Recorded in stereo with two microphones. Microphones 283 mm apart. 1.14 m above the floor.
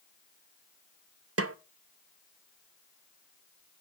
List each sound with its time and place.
1.4 s a snare drum: 55° right (ahead or behind), 0.5 m